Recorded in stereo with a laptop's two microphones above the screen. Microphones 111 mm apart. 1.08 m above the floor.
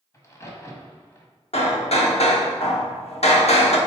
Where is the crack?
25° left (ahead or behind), 1.6 m.